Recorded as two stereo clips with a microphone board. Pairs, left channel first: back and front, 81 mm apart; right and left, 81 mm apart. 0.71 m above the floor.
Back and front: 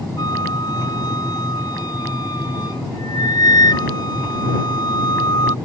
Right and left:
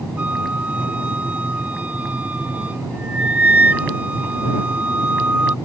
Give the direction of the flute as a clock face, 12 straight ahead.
7 o'clock.